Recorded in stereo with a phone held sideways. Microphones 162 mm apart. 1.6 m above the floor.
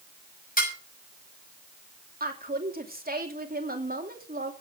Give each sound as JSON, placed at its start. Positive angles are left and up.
{"t": 0.6, "sound": "dishes clattering", "side_deg": 60, "distance_m": 6.0}
{"t": 2.2, "sound": "a woman speaking", "side_deg": -65, "distance_m": 3.0}